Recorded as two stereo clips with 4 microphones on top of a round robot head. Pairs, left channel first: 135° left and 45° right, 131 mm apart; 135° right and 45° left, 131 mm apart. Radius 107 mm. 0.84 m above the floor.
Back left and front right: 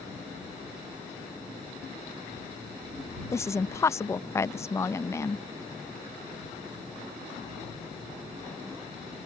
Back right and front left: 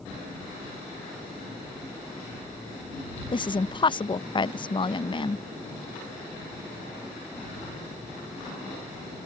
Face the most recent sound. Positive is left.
turn(degrees=-165)